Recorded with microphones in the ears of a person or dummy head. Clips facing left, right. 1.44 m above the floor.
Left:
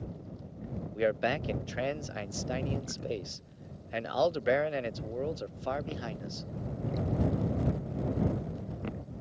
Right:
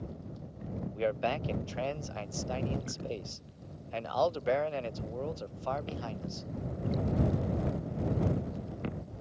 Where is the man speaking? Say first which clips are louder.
Left 2 dB; 20° left (ahead or behind).